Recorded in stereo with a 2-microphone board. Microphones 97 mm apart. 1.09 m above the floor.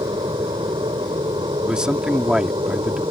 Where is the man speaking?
10° right (ahead or behind).